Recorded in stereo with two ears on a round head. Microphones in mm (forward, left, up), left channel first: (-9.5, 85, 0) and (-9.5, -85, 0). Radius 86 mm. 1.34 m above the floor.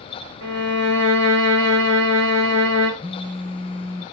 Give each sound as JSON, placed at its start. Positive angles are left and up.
{"t": 0.4, "sound": "a violin", "side_deg": -70, "distance_m": 1.6}
{"t": 3.0, "sound": "a phone buzzing", "side_deg": 10, "distance_m": 1.5}